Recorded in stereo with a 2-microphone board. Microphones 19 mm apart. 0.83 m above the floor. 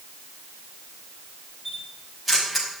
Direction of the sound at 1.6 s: 5° right (ahead or behind).